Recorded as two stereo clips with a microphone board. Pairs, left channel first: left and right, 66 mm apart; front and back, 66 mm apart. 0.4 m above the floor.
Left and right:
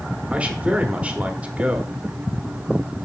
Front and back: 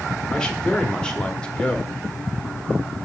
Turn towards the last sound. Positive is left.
turn(degrees=-55)